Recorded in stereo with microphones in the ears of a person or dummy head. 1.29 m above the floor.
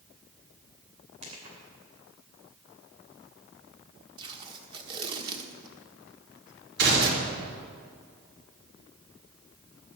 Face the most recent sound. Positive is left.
turn(degrees=-65)  # may be behind; listen again after turning